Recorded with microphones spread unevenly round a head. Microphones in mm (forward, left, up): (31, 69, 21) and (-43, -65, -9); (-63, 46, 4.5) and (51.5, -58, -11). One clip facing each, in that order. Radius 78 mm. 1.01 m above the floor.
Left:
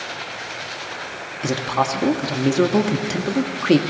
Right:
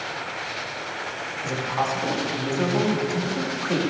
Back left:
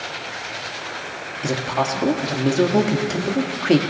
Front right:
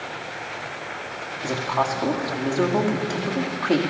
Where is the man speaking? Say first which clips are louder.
Left 5 dB, back left 2 dB; 70° left, 1.9 m.